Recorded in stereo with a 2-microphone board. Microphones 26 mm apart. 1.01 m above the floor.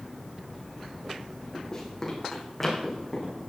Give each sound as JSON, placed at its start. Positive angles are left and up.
{"t": 1.7, "sound": "running footsteps", "side_deg": 20, "distance_m": 3.0}